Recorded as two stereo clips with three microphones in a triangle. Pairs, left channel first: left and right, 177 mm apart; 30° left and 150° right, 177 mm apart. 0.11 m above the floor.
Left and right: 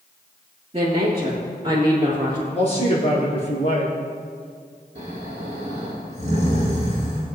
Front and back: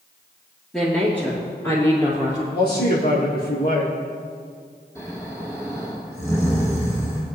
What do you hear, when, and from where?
0.7 s a woman speaking: 55° right, 2.5 m; by 2.4 s 30° right, 3 m
2.5 s a man speaking: 40° left, 4 m
5.0 s snoring: 45° right, 4.5 m